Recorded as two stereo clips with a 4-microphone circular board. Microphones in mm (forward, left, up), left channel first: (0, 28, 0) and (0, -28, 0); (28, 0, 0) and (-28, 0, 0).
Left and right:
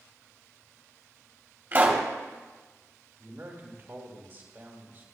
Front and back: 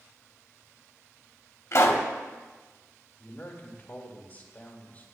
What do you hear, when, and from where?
1.7 s a pop: 35° right, 1.4 m
3.2 s a man speaking: 50° right, 2 m